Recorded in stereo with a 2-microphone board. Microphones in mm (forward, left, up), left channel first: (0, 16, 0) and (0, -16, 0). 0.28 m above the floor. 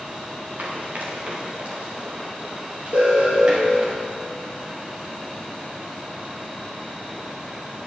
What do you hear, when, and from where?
0.6 s running footsteps: 60° right (ahead or behind), 3.5 m; by 3.9 s 30° right (ahead or behind), 4 m
2.9 s an alarm: 55° right (ahead or behind), 4.5 m